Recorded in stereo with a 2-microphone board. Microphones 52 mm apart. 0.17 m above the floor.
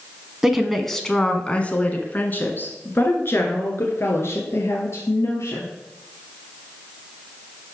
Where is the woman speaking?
5° right (ahead or behind), 1.1 m; by 5.7 s 60° left (ahead or behind), 3 m.